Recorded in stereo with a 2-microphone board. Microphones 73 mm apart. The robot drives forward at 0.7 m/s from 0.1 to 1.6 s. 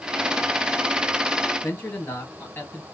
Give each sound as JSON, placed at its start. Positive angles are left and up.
{"t": 1.6, "sound": "a man speaking", "side_deg": 30, "distance_m": 3.5}